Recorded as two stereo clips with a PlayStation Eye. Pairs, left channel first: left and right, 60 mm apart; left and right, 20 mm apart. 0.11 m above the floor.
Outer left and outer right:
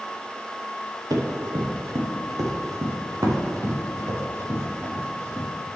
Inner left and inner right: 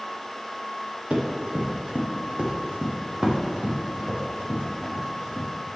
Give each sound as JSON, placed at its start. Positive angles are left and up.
{"t": 1.1, "sound": "running footsteps", "side_deg": -85, "distance_m": 2.0}